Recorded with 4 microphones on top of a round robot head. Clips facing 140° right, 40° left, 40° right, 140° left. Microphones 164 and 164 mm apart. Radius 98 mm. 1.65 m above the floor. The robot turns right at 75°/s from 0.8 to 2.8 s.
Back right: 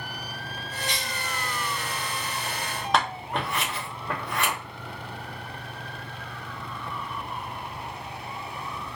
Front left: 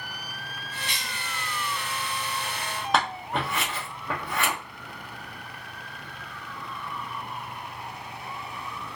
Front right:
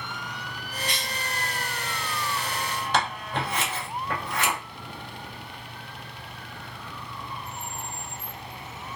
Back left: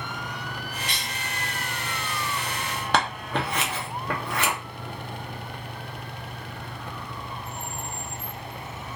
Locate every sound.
0.9 s a cough: straight ahead, 1.3 m; by 1.2 s 25° left, 1.3 m
2.9 s scissors: 130° left, 0.6 m